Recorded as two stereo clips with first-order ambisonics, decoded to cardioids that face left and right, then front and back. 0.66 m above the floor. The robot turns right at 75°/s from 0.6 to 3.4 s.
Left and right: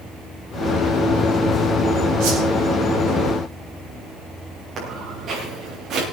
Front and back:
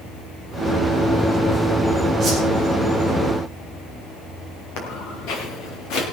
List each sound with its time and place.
2.2 s a whoosh: 105° right, 7 m; by 2.4 s 90° right, 7 m
4.8 s footsteps: 20° right, 6 m; by 6.0 s 30° right, 7 m